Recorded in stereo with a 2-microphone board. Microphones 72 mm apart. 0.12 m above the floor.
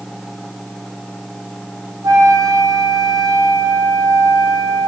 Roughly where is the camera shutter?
No camera shutter in this recording.